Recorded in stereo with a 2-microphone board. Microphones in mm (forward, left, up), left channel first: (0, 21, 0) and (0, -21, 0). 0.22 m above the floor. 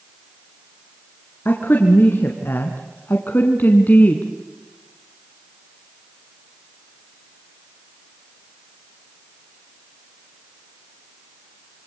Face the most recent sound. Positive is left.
turn(degrees=40)  # may be behind; listen again after turning